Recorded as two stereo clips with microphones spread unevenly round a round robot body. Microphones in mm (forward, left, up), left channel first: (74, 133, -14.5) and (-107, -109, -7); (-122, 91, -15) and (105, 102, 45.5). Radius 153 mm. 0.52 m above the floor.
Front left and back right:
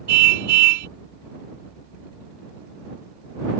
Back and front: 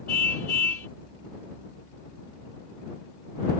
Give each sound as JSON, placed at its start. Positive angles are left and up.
{"t": 0.1, "sound": "a car horn", "azimuth_deg": -90}